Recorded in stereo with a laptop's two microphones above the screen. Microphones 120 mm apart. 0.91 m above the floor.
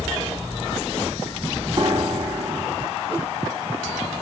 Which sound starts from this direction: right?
A piano, at 1.8 s.